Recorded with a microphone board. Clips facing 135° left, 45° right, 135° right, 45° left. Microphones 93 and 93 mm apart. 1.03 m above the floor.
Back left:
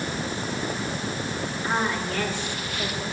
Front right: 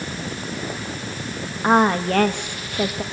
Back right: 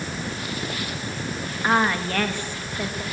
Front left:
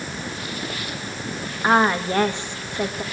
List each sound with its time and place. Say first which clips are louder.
1.6 s a woman speaking: front right 11 dB, front left 3 dB; 25° right, 1.4 m